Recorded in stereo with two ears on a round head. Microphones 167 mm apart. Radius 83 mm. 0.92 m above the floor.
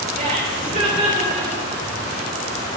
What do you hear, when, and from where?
0.1 s laughter: 45° right (ahead or behind), 3 m